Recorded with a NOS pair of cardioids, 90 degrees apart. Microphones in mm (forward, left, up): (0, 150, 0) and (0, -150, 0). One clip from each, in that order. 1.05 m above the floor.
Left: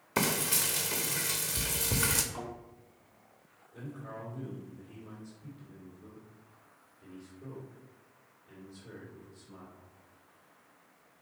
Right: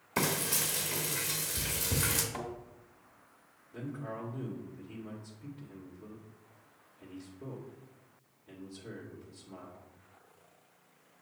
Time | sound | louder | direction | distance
0.2 | frying | left 2 dB | 20° left | 1.3 m
2.3 | a thud | right 1 dB | 60° right | 2.5 m
3.7 | a man speaking | right 3 dB | 50° right | 2 m